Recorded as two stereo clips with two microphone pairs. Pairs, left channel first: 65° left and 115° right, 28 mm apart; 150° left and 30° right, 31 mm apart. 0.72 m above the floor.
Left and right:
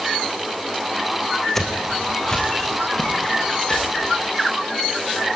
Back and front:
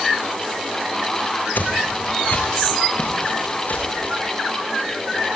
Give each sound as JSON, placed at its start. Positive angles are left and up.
{"t": 1.6, "sound": "footsteps", "azimuth_deg": 140, "distance_m": 2.0}